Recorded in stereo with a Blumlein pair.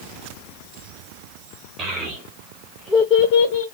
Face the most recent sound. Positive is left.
turn(degrees=60)